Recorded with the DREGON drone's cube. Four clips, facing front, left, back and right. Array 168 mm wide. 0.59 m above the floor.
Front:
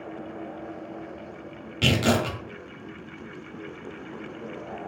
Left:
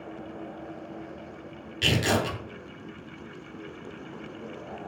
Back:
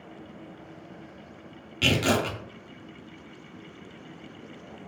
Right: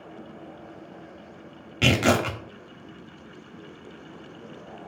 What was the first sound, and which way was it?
Tearing paper, 75° right.